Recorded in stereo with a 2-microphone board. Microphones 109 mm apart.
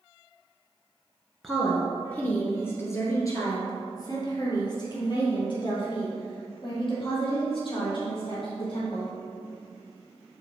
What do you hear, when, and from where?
1.4 s a woman speaking: centre (ahead or behind), 1.4 m; by 9.1 s 55° left (ahead or behind), 4.5 m